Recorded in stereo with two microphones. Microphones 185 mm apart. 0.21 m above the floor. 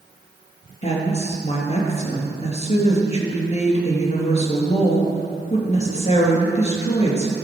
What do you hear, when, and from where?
0.8 s a woman speaking: 35° left (ahead or behind), 3 m